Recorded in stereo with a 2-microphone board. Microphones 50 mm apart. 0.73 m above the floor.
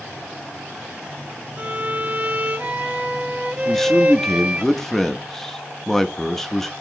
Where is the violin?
30° right (ahead or behind), 0.7 m.